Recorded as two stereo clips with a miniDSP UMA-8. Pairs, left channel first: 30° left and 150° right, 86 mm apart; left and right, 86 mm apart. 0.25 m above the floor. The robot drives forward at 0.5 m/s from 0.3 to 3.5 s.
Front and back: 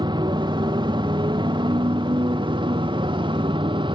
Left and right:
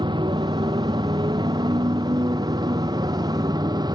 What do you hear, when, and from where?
0.0 s a motorcycle: 120° right; by 4.0 s 130° right